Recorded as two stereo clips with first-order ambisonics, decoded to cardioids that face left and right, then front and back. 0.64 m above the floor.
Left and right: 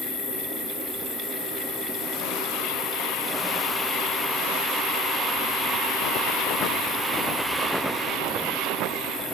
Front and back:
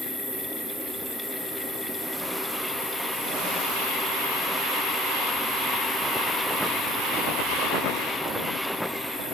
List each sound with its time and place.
0.0 s an insect: 85° left, 2.0 m